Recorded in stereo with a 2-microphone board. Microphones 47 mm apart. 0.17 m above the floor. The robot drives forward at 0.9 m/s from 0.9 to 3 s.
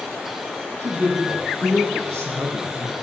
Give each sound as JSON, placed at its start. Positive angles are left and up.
{"t": 0.8, "sound": "a man speaking", "side_deg": -50, "distance_m": 7.0}